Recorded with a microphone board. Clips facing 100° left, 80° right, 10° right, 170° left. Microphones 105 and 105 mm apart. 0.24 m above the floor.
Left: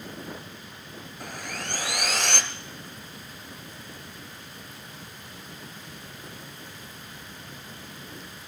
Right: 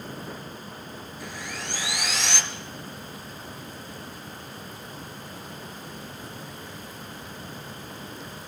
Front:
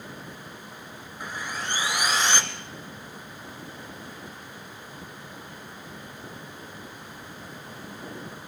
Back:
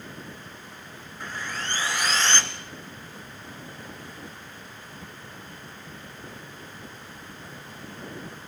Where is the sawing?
65° left, 1.6 m.